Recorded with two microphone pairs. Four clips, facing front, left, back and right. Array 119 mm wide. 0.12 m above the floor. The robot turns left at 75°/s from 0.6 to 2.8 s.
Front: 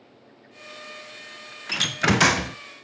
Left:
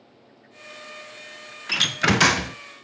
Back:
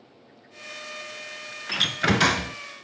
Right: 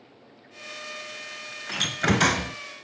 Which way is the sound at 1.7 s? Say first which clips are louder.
Left 2 dB, front 1 dB; 110° left.